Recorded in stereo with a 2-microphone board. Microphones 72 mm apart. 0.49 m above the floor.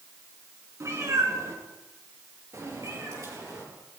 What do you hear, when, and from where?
0.8 s a cat meowing: 45° right (ahead or behind), 3 m; by 3.6 s 50° right (ahead or behind), 7 m